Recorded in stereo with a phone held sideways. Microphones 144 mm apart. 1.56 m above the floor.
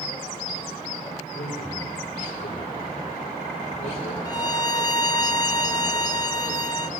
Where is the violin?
25° left (ahead or behind), 0.9 m.